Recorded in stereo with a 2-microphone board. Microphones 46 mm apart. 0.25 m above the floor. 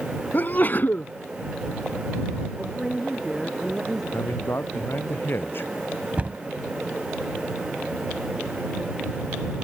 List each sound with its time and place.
0.3 s a sneeze: 40° left (ahead or behind)
2.6 s a woman speaking: 5° right (ahead or behind)
4.1 s a man speaking: 45° left (ahead or behind)
6.2 s a cupboard door: 30° right (ahead or behind)